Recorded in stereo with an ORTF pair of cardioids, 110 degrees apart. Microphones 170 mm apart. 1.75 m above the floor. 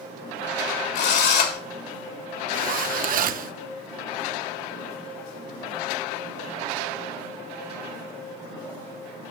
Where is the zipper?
55° right, 0.8 m.